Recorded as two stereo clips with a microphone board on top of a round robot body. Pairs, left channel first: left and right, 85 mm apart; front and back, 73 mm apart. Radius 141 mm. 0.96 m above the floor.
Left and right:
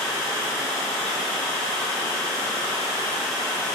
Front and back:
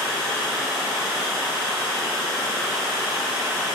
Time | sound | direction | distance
0.0 | running water | 100° left | 1.0 m